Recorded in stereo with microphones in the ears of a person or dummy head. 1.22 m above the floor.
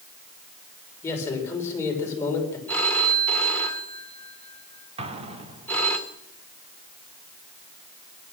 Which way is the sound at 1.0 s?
15° left (ahead or behind).